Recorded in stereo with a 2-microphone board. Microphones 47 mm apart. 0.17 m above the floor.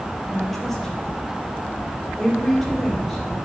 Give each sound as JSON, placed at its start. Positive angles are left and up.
{"t": 0.3, "sound": "a woman speaking", "side_deg": 5, "distance_m": 4.5}